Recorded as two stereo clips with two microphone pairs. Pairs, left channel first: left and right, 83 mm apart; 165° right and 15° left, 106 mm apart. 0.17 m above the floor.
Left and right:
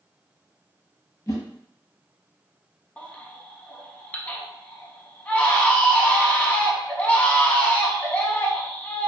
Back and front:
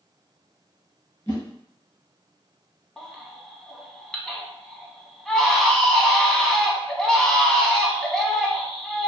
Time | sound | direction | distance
1.3 | a whoosh | 140° left | 1.0 m
3.0 | a baby crying | 120° left | 0.5 m